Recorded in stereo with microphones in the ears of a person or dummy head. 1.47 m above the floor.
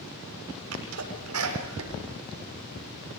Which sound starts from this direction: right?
A sneeze, at 0.7 s.